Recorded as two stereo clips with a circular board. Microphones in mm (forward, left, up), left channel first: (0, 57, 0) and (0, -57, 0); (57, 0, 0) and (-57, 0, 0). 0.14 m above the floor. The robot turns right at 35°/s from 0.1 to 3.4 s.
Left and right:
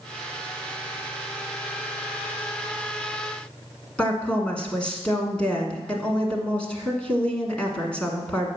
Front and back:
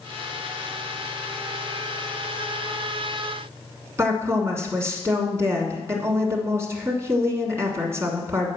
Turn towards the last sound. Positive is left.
turn(degrees=160)